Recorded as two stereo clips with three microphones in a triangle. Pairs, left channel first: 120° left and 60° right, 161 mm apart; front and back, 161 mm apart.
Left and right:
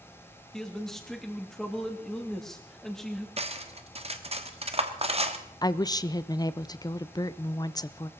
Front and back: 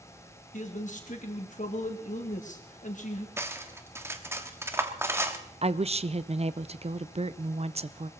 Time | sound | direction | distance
0.5 | a man speaking | 35° left | 2.5 m
3.4 | cutlery clinking | 105° right | 1.2 m
5.6 | a woman speaking | 170° left | 0.6 m